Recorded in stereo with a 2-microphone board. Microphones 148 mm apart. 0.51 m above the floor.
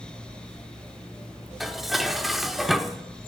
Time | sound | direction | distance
1.6 | dishes clattering | centre (ahead or behind) | 0.6 m